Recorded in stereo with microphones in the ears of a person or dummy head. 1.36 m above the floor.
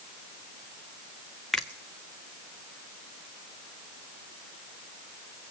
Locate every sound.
1.5 s a finger snap: centre (ahead or behind), 0.6 m